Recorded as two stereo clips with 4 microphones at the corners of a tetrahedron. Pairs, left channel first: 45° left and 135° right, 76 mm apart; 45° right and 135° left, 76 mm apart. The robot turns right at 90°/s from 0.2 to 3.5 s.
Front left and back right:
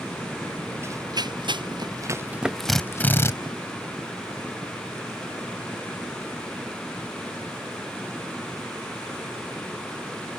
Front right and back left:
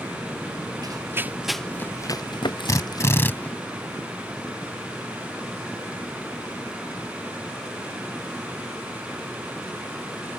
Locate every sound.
0.8 s running footsteps: 170° left; by 3.5 s 35° left
2.7 s a drill: 45° right; by 3.3 s 10° left